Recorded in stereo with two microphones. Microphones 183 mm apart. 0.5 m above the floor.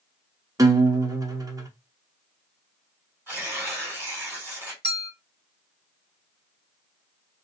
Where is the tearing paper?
10° right (ahead or behind), 1.8 m.